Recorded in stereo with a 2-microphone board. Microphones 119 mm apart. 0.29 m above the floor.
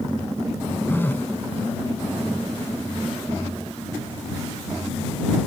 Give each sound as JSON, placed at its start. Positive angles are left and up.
{"t": 0.9, "sound": "a phone buzzing", "side_deg": 20}